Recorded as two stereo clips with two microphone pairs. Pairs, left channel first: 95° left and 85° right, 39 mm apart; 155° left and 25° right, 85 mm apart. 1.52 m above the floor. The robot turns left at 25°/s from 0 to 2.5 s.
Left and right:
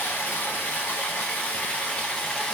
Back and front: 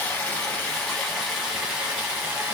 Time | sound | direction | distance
0.0 | running water | 90° left | 1.0 m